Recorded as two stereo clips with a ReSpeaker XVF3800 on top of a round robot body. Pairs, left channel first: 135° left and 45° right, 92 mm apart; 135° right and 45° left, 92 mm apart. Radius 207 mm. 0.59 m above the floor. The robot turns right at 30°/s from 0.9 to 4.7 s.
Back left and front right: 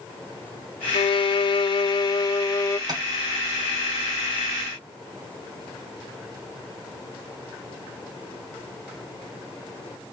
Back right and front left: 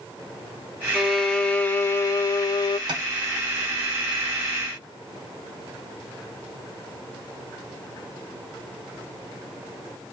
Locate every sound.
0.9 s a violin: 135° left, 0.6 m; by 2.8 s 170° right, 0.6 m
2.9 s tapping: 5° left, 0.9 m; by 3.0 s 10° left, 0.9 m